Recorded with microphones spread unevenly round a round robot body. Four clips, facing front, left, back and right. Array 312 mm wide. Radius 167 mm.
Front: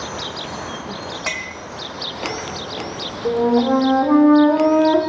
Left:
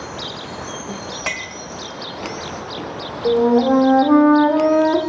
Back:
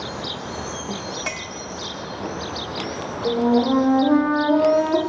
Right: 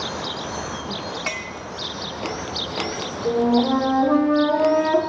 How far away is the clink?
About 0.8 m.